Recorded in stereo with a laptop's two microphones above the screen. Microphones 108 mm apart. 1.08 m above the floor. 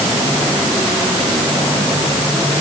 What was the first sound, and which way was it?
Only background noise.